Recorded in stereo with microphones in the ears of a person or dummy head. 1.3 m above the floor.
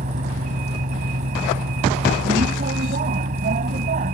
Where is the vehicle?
40° right (ahead or behind).